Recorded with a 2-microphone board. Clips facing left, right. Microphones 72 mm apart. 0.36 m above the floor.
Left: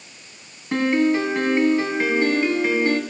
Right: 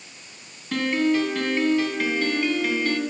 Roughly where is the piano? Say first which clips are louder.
Left 3 dB; left.